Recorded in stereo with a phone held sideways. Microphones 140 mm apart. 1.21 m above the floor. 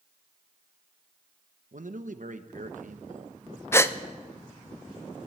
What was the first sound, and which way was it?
A man speaking, 65° right (ahead or behind).